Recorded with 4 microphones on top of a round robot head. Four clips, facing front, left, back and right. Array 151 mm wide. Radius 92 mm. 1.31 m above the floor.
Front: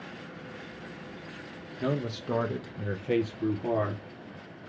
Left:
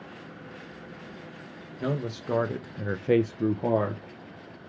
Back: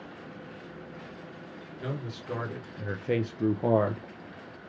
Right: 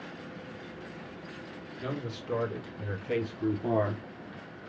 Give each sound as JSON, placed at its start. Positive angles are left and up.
{"t": 1.8, "sound": "a man speaking", "azimuth_deg": 50, "distance_m": 1.1}